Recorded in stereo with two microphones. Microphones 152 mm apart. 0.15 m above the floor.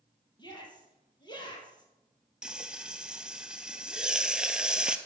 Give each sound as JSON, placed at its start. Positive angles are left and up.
{"t": 0.4, "sound": "a shout", "side_deg": 30, "distance_m": 5.0}
{"t": 2.4, "sound": "frying", "side_deg": -5, "distance_m": 0.8}